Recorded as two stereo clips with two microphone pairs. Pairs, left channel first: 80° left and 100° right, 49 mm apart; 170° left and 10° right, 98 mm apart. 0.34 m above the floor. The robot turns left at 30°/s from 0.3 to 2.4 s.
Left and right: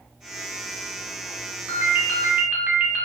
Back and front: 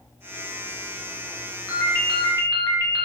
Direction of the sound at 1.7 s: 135° right.